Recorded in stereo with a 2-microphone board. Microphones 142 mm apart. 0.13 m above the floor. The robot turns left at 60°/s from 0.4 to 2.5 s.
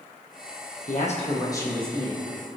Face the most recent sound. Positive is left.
turn(degrees=-35)